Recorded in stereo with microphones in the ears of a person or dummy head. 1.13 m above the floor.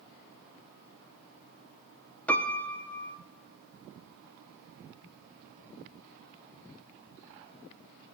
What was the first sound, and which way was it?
A piano, 10° left (ahead or behind).